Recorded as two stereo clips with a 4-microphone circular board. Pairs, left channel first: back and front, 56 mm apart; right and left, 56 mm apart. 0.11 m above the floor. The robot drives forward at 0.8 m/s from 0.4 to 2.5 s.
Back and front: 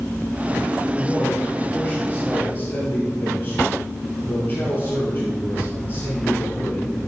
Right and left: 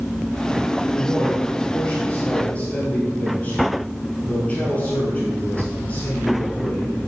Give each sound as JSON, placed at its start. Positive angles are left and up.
{"t": 0.9, "sound": "a man speaking", "azimuth_deg": -110, "distance_m": 2.0}